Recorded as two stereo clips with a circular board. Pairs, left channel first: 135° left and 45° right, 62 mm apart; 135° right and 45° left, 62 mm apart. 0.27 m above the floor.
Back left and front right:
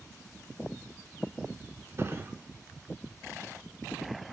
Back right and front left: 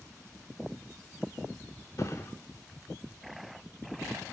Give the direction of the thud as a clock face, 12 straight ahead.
3 o'clock.